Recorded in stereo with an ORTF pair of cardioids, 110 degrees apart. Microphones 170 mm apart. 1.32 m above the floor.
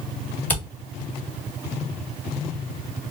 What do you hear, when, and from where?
0.5 s a camera shutter: 10° left, 1.7 m